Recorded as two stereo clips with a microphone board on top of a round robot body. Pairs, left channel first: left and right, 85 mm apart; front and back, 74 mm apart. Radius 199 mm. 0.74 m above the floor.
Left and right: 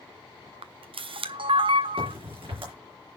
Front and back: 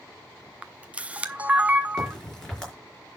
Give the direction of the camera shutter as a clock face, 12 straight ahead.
4 o'clock.